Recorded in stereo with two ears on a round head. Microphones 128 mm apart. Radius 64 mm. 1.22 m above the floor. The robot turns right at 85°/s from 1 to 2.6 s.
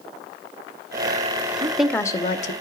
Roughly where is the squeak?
No squeak in this recording.